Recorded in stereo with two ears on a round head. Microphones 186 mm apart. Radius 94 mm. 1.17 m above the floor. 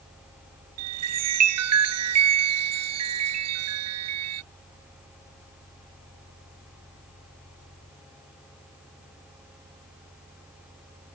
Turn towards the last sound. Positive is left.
turn(degrees=-80)